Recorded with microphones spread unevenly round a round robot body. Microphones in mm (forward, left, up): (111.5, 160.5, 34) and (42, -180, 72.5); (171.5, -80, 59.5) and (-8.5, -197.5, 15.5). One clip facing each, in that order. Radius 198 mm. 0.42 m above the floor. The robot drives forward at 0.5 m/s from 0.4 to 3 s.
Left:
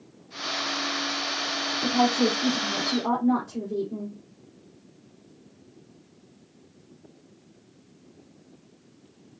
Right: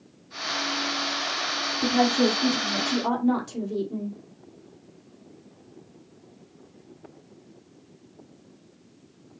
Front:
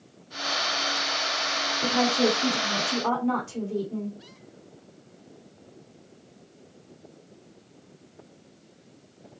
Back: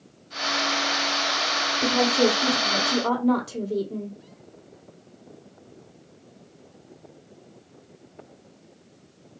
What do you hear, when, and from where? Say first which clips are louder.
1.8 s a woman speaking: right 2 dB, back 2 dB; 130° right, 1.8 m; by 4.2 s 145° right, 2 m